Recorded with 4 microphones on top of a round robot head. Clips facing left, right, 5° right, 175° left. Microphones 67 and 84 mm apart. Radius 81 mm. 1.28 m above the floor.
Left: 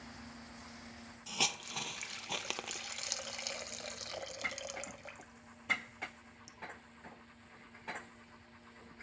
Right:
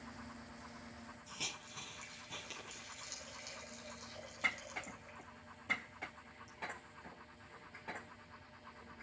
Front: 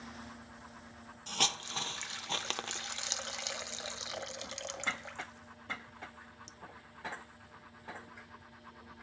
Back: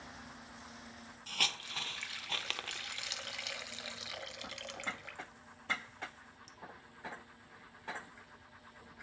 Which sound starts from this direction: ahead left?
A hiss, at 1.3 s.